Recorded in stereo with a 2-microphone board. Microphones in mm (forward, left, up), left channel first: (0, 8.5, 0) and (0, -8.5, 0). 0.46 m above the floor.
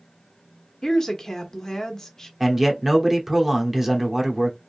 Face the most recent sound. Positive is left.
turn(degrees=-20)  # may be behind; listen again after turning